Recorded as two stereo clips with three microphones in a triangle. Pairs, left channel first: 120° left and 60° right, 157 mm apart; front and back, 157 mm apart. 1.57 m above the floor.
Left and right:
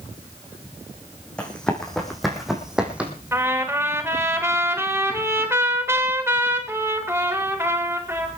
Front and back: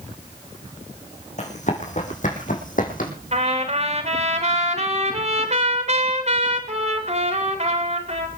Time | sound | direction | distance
1.4 | running footsteps | 35° left | 4.5 m
3.3 | a trumpet | 135° right | 3.5 m